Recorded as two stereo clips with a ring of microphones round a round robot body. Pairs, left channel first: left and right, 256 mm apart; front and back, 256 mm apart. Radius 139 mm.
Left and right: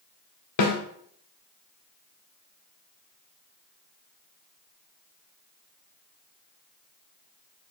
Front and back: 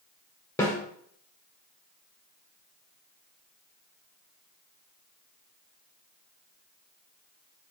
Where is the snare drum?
80° left, 1.3 m.